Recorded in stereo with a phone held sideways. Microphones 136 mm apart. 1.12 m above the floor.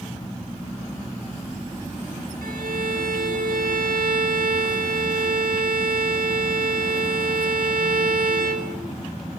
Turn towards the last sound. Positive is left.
turn(degrees=-85)